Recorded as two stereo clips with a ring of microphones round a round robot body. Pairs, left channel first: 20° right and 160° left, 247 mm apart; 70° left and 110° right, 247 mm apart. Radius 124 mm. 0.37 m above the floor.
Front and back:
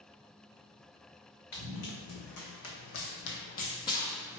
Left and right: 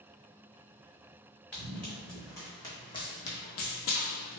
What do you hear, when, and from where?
1.5 s running footsteps: 20° right, 1.4 m; by 4.4 s 85° left, 0.5 m